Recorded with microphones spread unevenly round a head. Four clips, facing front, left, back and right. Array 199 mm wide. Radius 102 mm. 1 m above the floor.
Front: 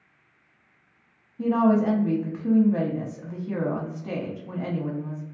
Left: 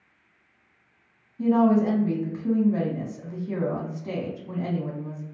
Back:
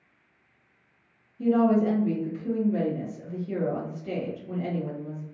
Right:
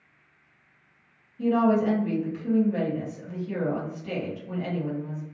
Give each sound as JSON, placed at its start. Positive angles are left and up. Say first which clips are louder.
{"t": 1.4, "sound": "a woman speaking", "louder": "left 2 dB, front 1 dB", "azimuth_deg": 10, "distance_m": 1.1}